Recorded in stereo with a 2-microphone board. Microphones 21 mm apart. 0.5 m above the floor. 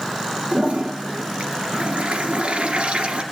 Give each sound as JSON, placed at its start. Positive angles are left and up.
{"t": 0.5, "sound": "a toilet flushing", "side_deg": -80, "distance_m": 1.8}